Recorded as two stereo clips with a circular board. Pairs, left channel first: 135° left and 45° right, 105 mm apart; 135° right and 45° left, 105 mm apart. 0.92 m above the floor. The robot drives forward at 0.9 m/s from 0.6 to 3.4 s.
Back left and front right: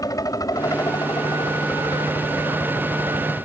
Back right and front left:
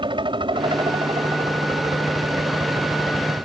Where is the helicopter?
80° left; by 3.5 s 85° left.